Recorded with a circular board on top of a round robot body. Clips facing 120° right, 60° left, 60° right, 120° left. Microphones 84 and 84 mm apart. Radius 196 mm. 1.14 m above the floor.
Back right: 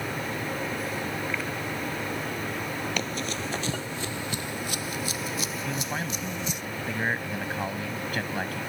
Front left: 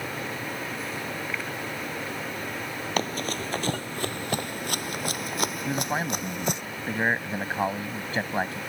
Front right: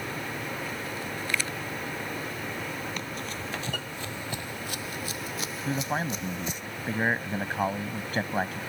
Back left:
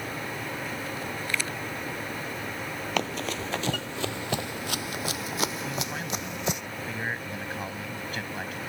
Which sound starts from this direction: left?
Running footsteps, at 3.0 s.